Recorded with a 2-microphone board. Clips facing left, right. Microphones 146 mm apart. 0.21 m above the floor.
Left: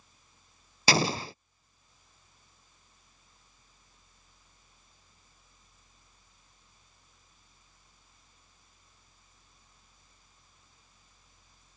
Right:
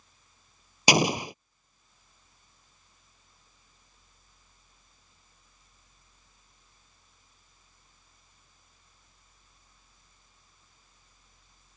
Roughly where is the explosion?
Centre.